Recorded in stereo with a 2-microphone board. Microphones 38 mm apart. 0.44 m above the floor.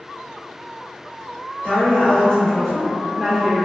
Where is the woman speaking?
35° left (ahead or behind), 1.4 m; by 3.6 s 15° right (ahead or behind), 1.1 m.